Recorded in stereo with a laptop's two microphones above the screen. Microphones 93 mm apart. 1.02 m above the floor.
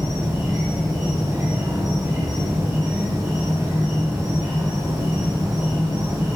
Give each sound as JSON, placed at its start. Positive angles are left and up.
{"t": 0.0, "sound": "an insect", "side_deg": -40, "distance_m": 6.5}